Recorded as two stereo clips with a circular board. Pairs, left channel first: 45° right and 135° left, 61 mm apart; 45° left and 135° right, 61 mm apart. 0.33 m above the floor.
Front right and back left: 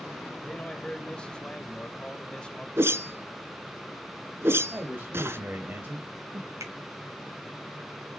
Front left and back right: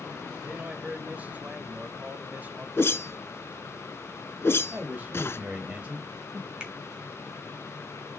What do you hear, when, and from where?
0.4 s a man speaking: 105° right, 1.5 m
2.8 s a whoosh: 90° left, 1.1 m
4.7 s a man speaking: 170° left, 1.8 m
6.6 s a finger snap: 155° left, 4 m